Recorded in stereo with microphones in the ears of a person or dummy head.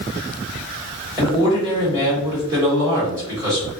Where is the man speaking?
15° right (ahead or behind), 1.3 m.